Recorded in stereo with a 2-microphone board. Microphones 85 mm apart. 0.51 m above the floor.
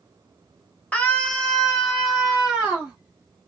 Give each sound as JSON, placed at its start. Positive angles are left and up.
{"t": 0.9, "sound": "a scream", "side_deg": 15, "distance_m": 1.1}